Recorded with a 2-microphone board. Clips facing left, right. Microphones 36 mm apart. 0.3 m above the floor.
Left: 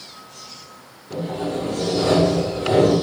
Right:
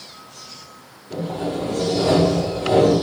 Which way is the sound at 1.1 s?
35° left (ahead or behind).